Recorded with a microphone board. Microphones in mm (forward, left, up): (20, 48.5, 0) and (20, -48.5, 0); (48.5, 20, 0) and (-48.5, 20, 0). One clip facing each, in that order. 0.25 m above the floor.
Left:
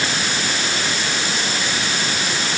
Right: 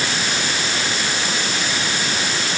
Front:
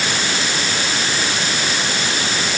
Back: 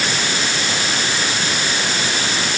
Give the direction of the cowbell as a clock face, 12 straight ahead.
No cowbell in this recording.